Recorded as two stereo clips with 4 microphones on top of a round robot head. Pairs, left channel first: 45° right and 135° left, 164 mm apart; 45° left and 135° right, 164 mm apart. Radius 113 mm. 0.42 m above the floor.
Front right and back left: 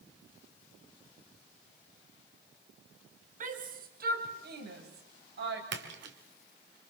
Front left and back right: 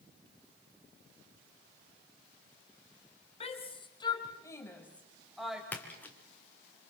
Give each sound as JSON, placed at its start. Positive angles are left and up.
{"t": 3.4, "sound": "a shout", "azimuth_deg": 95, "distance_m": 3.0}
{"t": 5.7, "sound": "a splash", "azimuth_deg": 125, "distance_m": 3.0}